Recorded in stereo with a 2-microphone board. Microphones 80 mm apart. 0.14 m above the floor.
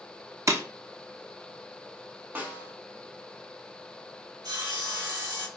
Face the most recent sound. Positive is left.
turn(degrees=-60)  # may be behind; listen again after turning